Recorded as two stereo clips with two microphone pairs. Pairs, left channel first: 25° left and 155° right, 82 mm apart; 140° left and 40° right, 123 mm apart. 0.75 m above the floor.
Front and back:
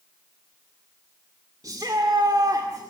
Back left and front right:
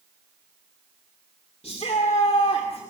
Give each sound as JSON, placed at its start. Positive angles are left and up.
{"t": 1.6, "sound": "a shout", "azimuth_deg": 170, "distance_m": 2.0}